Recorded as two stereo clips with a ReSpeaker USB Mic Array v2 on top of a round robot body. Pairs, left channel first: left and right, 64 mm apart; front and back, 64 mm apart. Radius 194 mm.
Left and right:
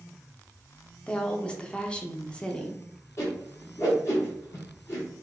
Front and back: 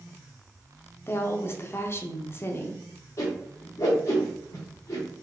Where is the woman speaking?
25° left, 0.9 m.